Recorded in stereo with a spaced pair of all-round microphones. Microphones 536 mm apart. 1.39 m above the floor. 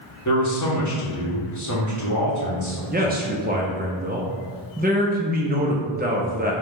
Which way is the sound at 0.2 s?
30° left (ahead or behind).